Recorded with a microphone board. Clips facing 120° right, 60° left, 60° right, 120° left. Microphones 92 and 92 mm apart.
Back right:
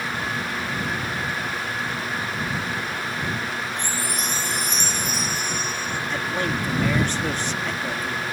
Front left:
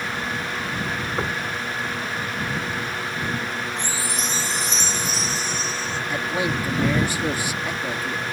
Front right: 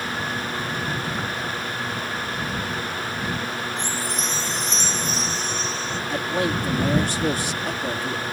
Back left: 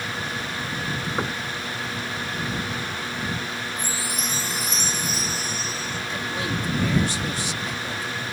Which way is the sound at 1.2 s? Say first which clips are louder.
Front left 2 dB, back left 1 dB; 65° left.